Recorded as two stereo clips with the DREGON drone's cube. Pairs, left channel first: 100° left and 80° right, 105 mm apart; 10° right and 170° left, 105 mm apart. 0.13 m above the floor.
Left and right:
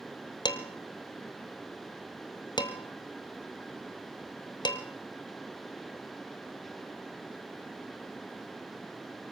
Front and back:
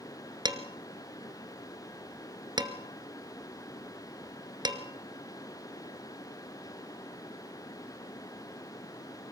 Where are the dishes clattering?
135° left, 1.7 m.